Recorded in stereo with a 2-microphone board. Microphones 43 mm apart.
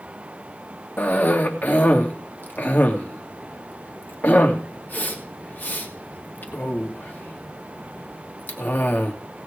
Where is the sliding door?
I don't hear a sliding door.